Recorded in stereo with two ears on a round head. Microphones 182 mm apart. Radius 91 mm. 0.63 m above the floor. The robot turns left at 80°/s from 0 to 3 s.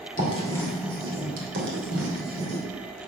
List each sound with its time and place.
0.2 s writing: 40° left (ahead or behind), 2.5 m; by 2.6 s 25° right (ahead or behind), 2.5 m